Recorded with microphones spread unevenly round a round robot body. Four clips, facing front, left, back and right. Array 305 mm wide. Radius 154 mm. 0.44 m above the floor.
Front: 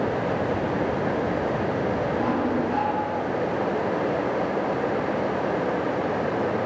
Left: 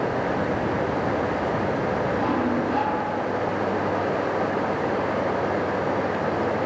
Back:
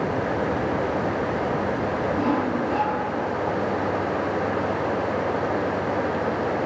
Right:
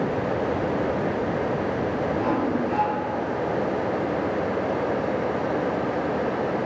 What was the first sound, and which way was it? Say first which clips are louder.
Sawing: even, back 1 dB; 140° right.